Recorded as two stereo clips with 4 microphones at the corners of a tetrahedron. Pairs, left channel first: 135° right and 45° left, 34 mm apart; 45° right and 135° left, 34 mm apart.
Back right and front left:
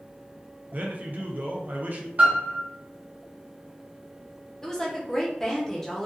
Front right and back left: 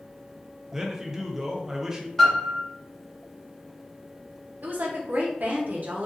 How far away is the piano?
About 1.2 m.